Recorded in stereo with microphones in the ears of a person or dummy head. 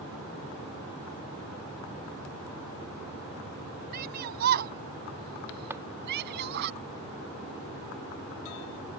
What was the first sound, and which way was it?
A shout, 45° right (ahead or behind).